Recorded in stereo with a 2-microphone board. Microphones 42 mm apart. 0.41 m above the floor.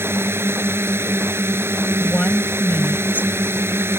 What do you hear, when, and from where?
0.0 s a drone: 80° right
2.0 s a woman speaking: 45° left (ahead or behind)